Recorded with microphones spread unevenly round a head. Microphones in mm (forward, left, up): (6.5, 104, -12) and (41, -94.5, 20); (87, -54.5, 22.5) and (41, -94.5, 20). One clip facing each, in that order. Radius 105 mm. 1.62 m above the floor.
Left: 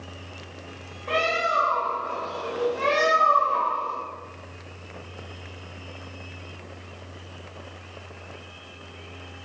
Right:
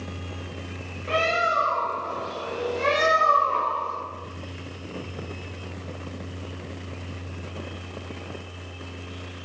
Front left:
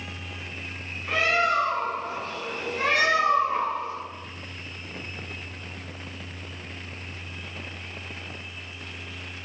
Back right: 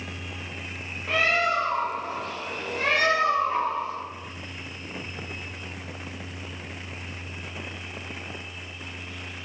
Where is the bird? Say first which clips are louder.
Right 1 dB, even; 175° right, 1.7 m.